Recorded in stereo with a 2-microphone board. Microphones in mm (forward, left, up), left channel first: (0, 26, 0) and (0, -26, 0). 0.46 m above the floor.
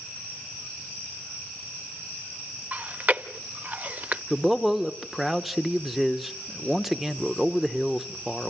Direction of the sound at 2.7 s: 30° right (ahead or behind).